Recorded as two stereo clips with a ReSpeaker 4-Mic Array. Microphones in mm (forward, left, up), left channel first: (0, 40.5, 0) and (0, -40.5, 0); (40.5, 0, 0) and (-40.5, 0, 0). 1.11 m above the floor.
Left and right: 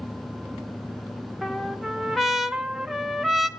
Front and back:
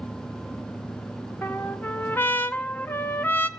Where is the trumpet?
5° right, 0.7 m.